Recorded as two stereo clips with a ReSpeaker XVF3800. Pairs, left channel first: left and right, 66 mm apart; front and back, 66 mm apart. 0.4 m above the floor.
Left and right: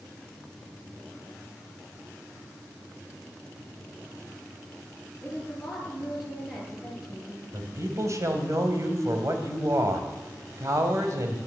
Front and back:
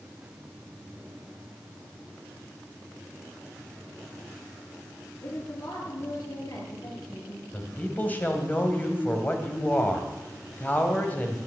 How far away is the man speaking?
About 2.5 m.